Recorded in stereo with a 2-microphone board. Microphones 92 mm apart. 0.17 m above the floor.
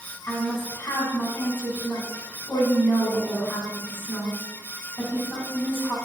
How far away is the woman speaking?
About 1.5 m.